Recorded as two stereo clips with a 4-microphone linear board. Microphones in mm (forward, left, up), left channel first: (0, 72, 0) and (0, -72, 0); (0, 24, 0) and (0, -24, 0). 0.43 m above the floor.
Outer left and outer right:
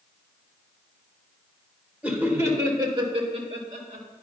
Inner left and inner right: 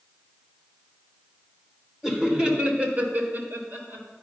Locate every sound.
2.0 s laughter: 10° right (ahead or behind), 1.5 m; by 4.0 s 55° right (ahead or behind), 1.7 m